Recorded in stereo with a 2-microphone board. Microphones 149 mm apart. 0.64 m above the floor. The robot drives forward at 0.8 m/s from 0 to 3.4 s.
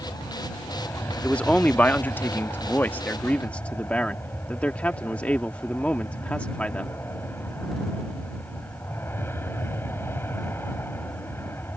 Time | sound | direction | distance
0.0 | an aircraft | 15° left (ahead or behind) | ?
1.2 | a man speaking | 10° left (ahead or behind) | ?